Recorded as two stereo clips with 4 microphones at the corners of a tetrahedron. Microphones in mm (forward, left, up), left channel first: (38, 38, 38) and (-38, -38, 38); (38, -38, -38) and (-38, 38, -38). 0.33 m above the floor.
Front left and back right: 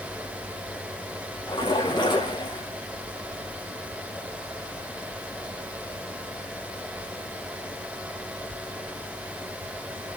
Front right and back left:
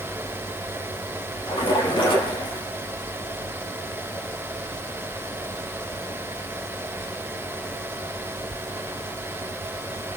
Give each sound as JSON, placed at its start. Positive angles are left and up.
{"t": 1.5, "sound": "a splash", "azimuth_deg": 0, "distance_m": 5.5}